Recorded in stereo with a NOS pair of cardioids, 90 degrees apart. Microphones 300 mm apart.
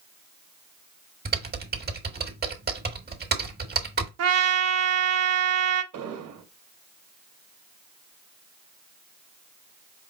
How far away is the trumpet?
About 0.9 m.